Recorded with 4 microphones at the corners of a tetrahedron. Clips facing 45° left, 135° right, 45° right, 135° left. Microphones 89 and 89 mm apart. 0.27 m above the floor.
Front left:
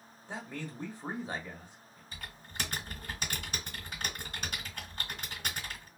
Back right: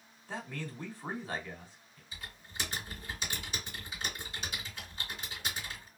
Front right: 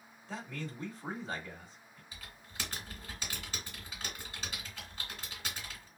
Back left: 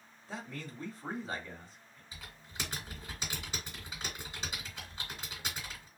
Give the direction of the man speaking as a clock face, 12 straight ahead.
10 o'clock.